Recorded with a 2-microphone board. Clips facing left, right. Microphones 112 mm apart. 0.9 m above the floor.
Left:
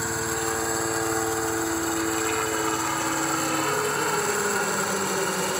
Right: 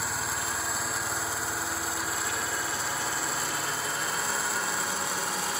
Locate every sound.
0.0 s a helicopter: 60° left (ahead or behind); by 5.6 s 65° left (ahead or behind)